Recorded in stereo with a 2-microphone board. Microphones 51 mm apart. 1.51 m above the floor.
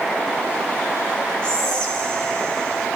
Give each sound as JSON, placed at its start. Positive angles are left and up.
{"t": 1.4, "sound": "whispering", "side_deg": 20, "distance_m": 3.0}